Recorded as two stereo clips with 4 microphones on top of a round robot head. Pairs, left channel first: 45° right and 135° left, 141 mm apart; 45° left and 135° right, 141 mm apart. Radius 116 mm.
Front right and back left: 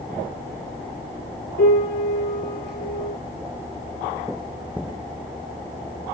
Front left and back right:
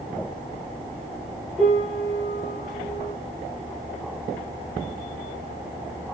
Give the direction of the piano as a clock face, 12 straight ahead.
1 o'clock.